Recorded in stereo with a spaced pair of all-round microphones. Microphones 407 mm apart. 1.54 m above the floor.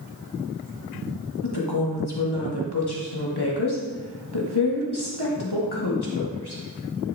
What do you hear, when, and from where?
1.4 s a woman speaking: 70° left (ahead or behind), 1.7 m